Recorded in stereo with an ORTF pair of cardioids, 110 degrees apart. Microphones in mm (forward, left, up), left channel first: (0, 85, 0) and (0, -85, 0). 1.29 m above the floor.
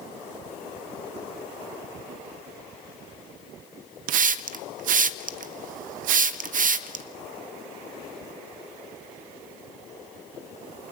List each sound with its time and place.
4.1 s a hiss: 55° right, 0.6 m